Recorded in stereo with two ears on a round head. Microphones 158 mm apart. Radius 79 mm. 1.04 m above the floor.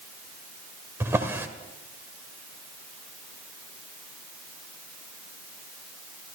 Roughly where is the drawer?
Centre.